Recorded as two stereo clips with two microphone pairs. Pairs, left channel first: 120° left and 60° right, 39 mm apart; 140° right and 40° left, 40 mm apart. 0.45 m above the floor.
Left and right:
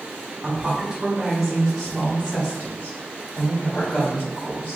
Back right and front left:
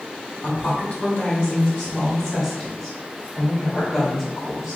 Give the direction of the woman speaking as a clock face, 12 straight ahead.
4 o'clock.